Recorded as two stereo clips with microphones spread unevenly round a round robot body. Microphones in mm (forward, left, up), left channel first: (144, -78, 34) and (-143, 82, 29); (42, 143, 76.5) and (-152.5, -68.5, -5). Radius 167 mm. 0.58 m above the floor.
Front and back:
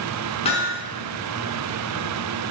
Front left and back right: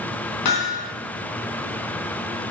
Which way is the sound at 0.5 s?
40° left.